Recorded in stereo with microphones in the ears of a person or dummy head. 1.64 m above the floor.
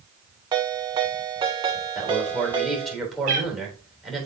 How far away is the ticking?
No ticking in this recording.